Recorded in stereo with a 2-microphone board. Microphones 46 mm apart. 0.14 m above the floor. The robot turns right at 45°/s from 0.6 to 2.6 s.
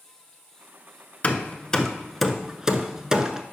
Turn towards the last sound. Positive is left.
turn(degrees=-15)  # may be behind; listen again after turning